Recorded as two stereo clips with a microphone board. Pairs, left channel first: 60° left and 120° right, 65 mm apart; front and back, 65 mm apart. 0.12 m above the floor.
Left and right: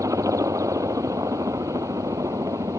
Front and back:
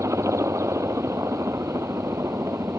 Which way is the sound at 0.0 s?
145° right.